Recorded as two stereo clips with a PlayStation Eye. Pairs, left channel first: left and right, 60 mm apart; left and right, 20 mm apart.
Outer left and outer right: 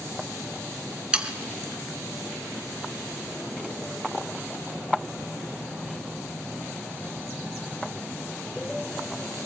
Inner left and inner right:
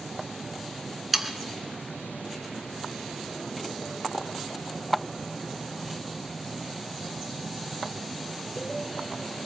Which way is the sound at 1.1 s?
15° right (ahead or behind).